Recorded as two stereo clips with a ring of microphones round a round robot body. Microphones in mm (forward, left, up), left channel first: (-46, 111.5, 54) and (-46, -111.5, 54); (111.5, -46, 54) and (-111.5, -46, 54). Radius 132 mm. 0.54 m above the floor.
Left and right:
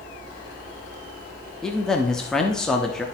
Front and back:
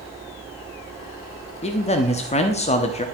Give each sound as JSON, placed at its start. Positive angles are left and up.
{"t": 1.6, "sound": "a man speaking", "azimuth_deg": 5, "distance_m": 0.8}